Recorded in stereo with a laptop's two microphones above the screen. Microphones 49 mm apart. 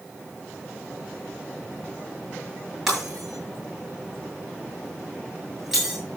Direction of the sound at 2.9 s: 10° right (ahead or behind).